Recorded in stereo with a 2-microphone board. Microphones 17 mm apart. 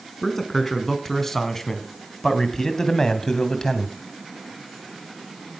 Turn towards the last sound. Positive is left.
turn(degrees=35)  # may be behind; listen again after turning